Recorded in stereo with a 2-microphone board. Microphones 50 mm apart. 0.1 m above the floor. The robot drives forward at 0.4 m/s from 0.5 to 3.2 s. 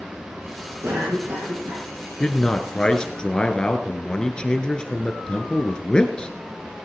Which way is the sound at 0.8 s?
65° right (ahead or behind).